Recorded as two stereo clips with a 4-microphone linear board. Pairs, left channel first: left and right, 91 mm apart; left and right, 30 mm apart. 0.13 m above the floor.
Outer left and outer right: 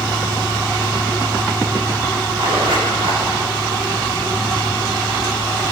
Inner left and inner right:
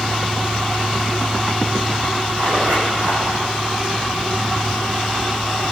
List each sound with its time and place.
2.4 s a zipper: 70° right (ahead or behind), 6.5 m